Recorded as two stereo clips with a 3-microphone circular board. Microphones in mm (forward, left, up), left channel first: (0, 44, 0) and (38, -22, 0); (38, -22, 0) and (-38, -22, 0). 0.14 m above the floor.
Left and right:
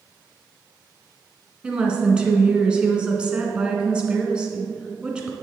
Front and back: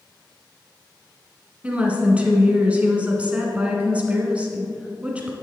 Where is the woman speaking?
125° right, 1.4 m.